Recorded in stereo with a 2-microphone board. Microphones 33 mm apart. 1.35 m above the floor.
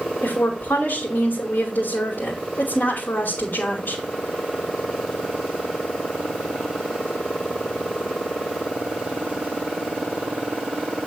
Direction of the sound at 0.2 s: 70° left (ahead or behind).